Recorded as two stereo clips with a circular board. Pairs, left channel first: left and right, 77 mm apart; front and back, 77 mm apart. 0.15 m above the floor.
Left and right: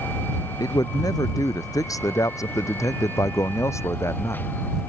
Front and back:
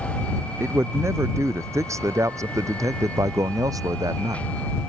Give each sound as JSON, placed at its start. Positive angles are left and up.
{"t": 0.6, "sound": "a man speaking", "azimuth_deg": 125}